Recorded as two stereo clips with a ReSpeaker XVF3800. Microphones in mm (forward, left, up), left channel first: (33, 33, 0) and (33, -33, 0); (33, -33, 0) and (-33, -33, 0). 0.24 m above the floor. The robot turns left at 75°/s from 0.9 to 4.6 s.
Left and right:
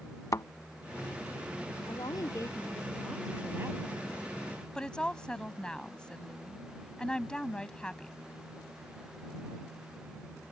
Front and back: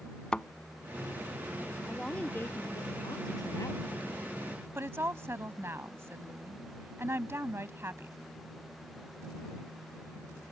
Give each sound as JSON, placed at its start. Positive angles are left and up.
{"t": 0.3, "sound": "a thud", "azimuth_deg": 75}
{"t": 1.9, "sound": "a woman speaking", "azimuth_deg": 95}
{"t": 4.8, "sound": "a woman speaking", "azimuth_deg": 160}